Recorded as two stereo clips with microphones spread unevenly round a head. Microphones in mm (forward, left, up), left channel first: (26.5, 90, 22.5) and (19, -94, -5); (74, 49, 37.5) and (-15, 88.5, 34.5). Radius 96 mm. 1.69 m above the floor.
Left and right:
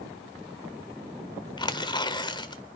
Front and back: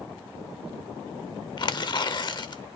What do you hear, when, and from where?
1.6 s tearing paper: 20° left, 0.9 m